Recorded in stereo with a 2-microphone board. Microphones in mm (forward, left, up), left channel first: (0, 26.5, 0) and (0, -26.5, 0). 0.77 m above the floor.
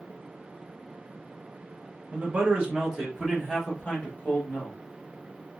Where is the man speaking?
30° right (ahead or behind), 1.2 m; by 4.8 s 35° left (ahead or behind), 1.3 m.